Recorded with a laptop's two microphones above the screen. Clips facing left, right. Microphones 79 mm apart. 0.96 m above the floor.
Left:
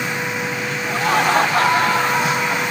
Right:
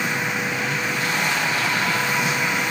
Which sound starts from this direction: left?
Laughter, at 0.9 s.